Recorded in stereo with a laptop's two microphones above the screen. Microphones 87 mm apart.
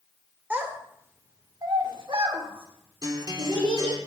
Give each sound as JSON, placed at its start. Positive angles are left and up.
{"t": 0.5, "sound": "a child speaking", "side_deg": -20, "distance_m": 1.8}
{"t": 3.0, "sound": "a guitar", "side_deg": -50, "distance_m": 1.1}